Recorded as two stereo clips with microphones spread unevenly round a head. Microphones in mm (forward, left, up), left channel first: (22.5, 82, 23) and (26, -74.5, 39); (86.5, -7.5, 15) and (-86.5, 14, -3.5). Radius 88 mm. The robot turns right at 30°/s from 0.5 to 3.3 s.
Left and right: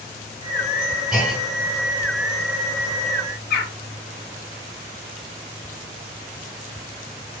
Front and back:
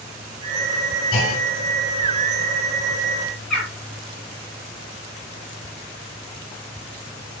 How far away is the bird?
About 6.5 m.